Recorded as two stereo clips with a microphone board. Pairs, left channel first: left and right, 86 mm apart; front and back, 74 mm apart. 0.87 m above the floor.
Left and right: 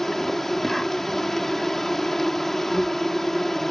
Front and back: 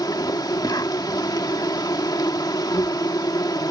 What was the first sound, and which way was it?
An insect, 5° left.